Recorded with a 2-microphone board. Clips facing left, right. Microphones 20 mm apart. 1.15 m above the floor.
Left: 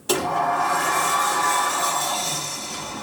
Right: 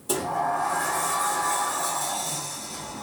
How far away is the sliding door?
About 0.9 m.